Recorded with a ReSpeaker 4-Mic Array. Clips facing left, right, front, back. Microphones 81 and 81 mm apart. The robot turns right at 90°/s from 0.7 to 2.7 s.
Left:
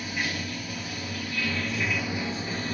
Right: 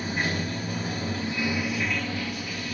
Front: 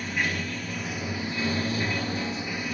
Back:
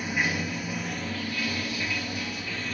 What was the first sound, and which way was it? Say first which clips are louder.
Running water: right 3 dB, back 1 dB; 105° right.